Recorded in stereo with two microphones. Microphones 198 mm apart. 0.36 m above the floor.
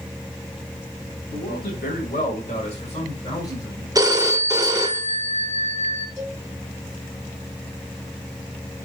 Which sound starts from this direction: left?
A man speaking, at 1.3 s.